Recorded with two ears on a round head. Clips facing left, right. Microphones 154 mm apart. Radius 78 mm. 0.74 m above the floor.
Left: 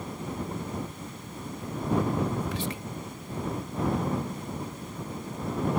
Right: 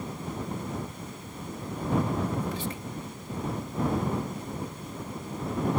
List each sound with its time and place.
2.4 s whispering: 50° left (ahead or behind)